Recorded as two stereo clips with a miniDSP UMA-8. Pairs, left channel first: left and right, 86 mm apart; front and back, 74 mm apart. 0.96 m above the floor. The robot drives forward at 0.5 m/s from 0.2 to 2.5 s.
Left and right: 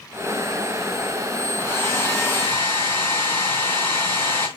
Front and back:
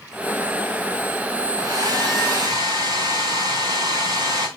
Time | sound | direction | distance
1.6 | a hair dryer | 150° left | 3 m